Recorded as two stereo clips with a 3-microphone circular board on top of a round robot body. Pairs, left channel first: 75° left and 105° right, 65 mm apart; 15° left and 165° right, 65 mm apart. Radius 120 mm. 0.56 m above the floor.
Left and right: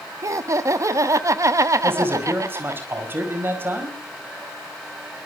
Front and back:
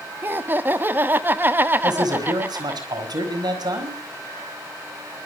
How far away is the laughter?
About 1.5 m.